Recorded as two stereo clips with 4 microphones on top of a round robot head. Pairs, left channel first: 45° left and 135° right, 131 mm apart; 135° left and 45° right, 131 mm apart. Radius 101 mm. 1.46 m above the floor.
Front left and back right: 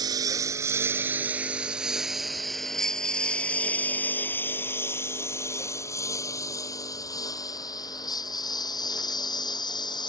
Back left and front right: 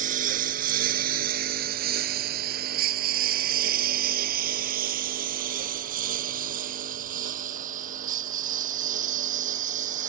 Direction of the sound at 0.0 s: 75° right.